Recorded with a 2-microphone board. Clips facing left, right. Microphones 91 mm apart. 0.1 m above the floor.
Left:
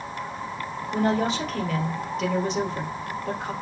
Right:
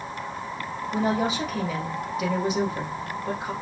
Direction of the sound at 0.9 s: 5° right (ahead or behind).